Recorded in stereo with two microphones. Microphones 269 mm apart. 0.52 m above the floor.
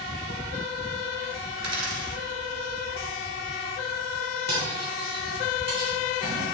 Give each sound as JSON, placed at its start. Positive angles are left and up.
{"t": 1.6, "sound": "a dropped coin", "side_deg": -80, "distance_m": 1.5}
{"t": 4.5, "sound": "cutlery clinking", "side_deg": -40, "distance_m": 3.0}